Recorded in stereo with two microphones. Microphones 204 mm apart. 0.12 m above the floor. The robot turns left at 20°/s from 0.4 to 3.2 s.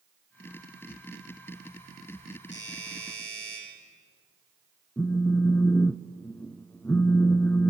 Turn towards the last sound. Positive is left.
turn(degrees=10)  # may be behind; listen again after turning